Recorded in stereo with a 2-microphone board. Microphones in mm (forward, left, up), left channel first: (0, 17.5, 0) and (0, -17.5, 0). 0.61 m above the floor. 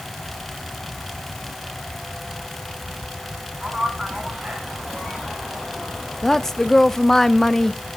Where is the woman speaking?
10° left (ahead or behind), 0.6 m.